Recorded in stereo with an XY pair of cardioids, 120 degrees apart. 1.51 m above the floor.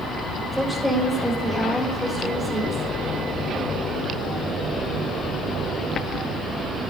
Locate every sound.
0.5 s a woman speaking: 5° right, 4.5 m; by 2.8 s 10° left, 5 m